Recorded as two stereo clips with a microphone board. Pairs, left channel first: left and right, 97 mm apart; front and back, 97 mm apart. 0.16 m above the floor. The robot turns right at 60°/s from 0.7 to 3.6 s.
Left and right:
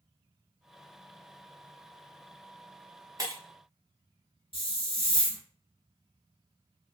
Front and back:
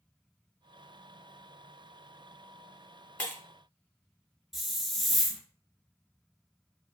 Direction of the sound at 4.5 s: 90° left.